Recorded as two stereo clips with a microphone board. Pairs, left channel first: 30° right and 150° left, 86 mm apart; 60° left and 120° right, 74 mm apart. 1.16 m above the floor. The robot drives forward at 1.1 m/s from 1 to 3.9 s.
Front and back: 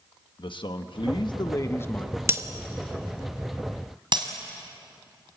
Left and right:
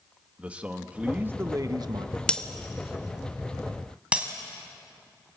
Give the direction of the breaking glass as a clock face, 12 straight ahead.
8 o'clock.